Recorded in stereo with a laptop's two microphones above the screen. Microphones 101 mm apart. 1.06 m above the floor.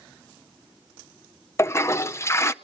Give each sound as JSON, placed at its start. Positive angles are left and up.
{"t": 1.6, "sound": "a toilet flushing", "side_deg": 30, "distance_m": 0.5}